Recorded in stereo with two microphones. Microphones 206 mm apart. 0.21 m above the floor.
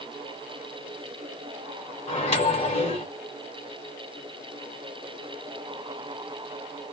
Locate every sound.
2.1 s a microwave: 30° left (ahead or behind), 1.6 m